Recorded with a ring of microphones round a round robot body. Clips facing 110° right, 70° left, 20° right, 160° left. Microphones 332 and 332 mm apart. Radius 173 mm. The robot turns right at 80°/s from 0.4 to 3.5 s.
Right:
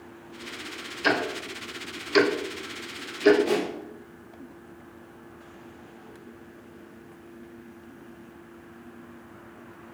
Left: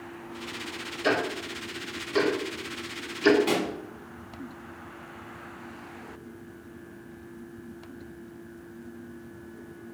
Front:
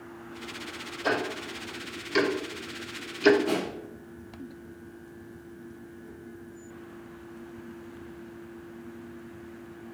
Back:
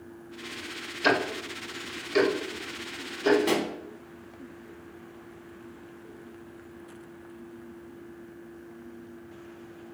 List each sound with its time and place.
1.0 s ticking: straight behind, 0.7 m; by 3.4 s 5° left, 0.7 m
3.5 s a pop: 130° left, 0.9 m; by 3.7 s 135° left, 0.9 m